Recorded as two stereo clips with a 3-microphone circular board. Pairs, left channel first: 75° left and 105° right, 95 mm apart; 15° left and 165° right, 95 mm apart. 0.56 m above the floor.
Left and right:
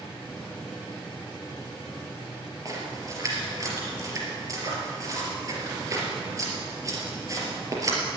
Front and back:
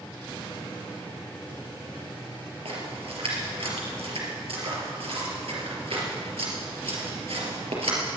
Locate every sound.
2.6 s a splash: 160° right, 4 m